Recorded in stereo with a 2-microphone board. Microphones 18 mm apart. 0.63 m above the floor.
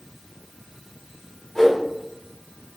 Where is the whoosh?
10° left (ahead or behind), 1.5 m.